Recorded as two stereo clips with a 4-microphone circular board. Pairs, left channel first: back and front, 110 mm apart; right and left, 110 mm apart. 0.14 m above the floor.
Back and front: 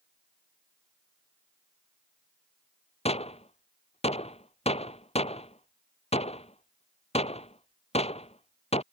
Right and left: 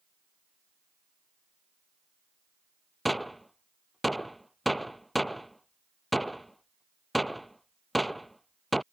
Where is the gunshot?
Straight behind.